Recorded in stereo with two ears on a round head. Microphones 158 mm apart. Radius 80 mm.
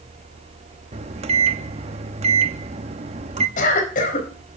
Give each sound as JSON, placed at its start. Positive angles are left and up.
{"t": 0.9, "sound": "a microwave", "side_deg": -35, "distance_m": 0.9}
{"t": 3.6, "sound": "a cough", "side_deg": 50, "distance_m": 4.5}